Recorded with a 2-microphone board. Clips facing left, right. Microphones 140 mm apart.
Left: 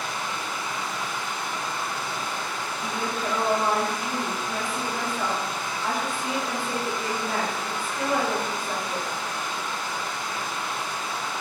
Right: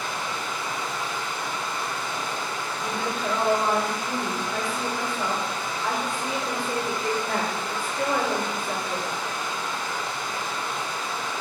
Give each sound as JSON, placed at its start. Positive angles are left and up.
{"t": 0.0, "sound": "running water", "side_deg": -20, "distance_m": 2.5}
{"t": 2.8, "sound": "a woman speaking", "side_deg": 5, "distance_m": 2.0}